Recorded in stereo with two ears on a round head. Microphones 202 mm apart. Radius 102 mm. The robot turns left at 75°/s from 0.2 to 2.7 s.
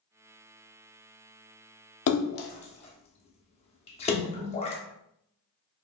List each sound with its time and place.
2.1 s a splash: 65° left (ahead or behind), 0.5 m; by 4.8 s 25° left (ahead or behind), 0.5 m